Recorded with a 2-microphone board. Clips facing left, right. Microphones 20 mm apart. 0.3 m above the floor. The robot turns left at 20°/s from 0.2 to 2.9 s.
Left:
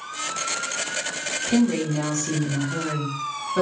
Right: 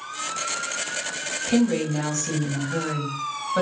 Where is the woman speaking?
10° right (ahead or behind), 1.8 m; by 3.6 s 30° right (ahead or behind), 1.8 m.